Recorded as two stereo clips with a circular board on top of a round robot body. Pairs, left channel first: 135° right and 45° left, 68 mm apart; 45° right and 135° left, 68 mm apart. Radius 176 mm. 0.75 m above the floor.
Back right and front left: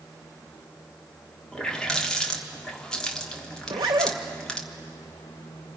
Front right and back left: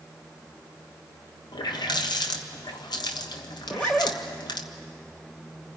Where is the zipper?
25° left, 0.6 m.